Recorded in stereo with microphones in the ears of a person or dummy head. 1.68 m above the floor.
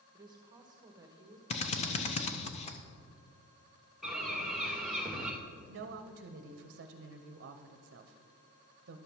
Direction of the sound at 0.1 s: 20° right (ahead or behind).